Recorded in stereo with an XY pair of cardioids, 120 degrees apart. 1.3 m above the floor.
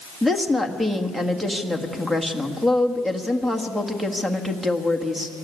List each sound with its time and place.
0.2 s a woman speaking: 5° right, 1.8 m